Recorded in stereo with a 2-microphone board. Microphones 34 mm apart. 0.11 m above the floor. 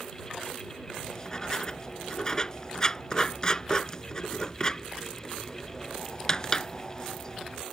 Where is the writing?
20° left (ahead or behind).